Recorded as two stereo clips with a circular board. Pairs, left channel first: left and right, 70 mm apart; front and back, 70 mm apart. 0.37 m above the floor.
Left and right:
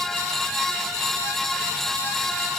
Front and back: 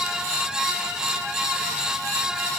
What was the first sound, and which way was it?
Only background noise.